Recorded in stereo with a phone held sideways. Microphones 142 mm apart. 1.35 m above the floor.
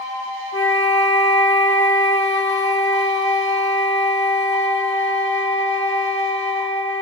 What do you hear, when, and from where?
0.5 s a flute: 15° left (ahead or behind), 1.8 m